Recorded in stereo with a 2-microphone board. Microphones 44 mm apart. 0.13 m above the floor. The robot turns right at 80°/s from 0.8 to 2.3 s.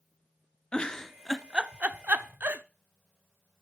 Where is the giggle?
25° left (ahead or behind), 0.5 m; by 2.6 s 50° right (ahead or behind), 0.5 m.